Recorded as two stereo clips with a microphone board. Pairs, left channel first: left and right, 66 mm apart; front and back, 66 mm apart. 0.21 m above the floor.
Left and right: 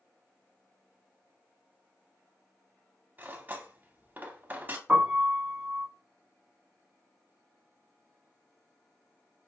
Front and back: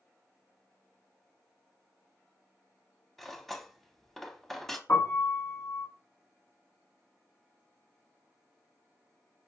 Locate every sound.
3.2 s cutlery clinking: 85° right, 0.6 m
4.9 s a piano: 30° right, 1.2 m